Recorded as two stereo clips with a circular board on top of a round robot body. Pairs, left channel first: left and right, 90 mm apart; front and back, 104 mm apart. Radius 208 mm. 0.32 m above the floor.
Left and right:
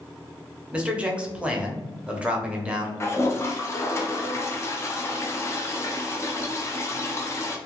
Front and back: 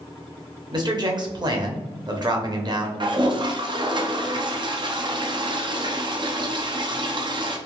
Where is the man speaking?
160° right, 1.0 m.